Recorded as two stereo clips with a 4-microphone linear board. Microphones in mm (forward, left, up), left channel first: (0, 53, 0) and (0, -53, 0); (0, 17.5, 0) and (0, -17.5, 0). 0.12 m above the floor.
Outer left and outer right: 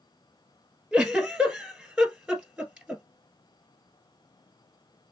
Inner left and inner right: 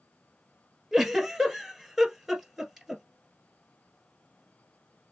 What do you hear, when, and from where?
0.9 s a giggle: 10° right (ahead or behind), 1.5 m